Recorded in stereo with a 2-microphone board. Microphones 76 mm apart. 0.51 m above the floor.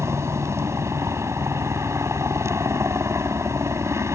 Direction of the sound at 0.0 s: 35° right (ahead or behind).